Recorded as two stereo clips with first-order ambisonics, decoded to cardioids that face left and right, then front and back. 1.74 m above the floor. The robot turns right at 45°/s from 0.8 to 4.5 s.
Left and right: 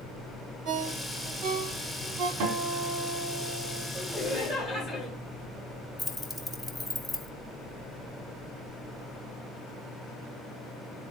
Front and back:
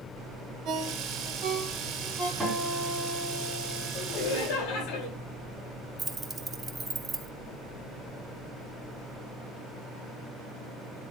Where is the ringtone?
135° right, 3.5 m; by 2.3 s 70° right, 3.5 m.